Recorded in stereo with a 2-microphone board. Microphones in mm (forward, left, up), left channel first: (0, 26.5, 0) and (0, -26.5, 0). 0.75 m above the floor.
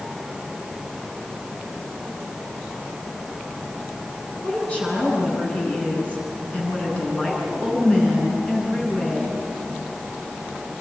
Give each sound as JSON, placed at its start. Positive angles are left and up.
{"t": 4.4, "sound": "a woman speaking", "side_deg": 25, "distance_m": 9.5}